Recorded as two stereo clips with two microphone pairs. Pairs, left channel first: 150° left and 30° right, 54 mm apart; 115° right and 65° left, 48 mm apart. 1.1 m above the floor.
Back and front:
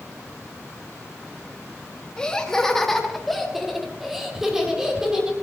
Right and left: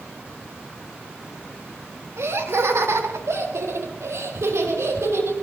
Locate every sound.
2.2 s laughter: 75° left, 3.5 m; by 5.3 s 50° left, 6 m